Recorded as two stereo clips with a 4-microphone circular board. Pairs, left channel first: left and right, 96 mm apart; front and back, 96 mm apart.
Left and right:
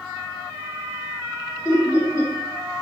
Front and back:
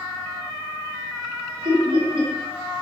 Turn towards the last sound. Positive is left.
turn(degrees=150)